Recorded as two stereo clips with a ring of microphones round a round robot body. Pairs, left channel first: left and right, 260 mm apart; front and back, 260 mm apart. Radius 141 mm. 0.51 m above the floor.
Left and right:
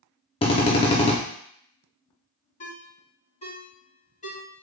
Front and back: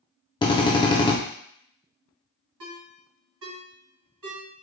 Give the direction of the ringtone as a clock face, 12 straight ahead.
7 o'clock.